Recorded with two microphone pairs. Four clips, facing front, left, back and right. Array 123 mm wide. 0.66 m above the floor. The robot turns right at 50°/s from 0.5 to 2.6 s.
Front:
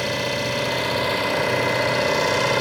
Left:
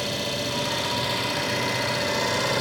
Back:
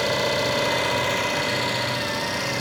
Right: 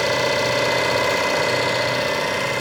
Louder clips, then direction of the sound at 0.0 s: Right 9 dB, back 2 dB; 100° right.